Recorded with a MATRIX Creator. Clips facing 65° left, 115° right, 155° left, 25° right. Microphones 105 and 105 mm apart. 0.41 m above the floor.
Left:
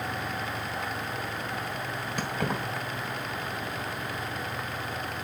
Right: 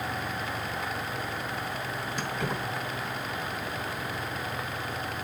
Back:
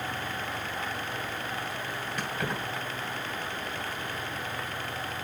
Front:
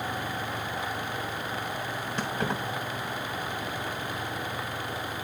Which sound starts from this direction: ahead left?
Keys jangling, at 2.2 s.